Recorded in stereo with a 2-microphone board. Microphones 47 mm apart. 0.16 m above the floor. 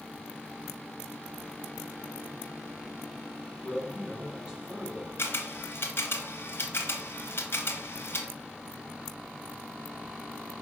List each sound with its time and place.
3.6 s a man speaking: 25° right (ahead or behind), 2 m
5.2 s a camera shutter: 60° left (ahead or behind), 1.0 m